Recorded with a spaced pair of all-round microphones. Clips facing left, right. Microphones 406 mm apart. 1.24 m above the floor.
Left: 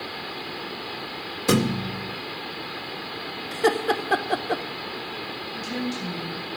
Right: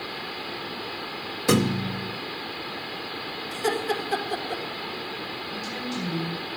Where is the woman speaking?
55° right (ahead or behind), 7.5 m.